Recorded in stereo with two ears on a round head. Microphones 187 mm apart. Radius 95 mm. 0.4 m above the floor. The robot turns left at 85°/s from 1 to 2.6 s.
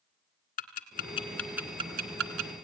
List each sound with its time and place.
0.6 s ticking: 40° left (ahead or behind), 2.5 m; by 2.5 s 80° right, 2.5 m